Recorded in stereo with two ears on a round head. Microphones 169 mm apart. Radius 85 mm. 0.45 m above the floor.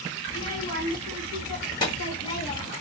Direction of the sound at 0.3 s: 25° left (ahead or behind).